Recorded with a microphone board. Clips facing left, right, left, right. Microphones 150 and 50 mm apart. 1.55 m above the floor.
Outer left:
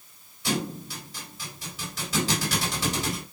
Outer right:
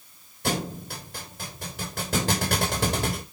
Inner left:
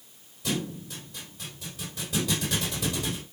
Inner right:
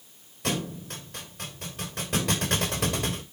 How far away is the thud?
About 3 m.